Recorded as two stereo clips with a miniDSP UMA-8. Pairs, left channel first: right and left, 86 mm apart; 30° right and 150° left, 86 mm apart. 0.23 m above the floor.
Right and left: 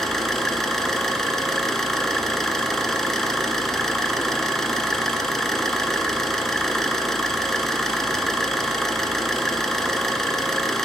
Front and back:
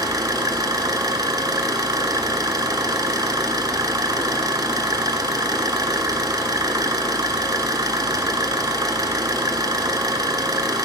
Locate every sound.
0.0 s an engine running: 175° right, 0.9 m